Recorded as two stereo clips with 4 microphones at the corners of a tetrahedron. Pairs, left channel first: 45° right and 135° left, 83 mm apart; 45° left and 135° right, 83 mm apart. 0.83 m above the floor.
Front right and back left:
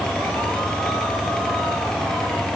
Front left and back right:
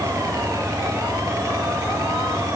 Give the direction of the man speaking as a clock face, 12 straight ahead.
I don't hear a man speaking.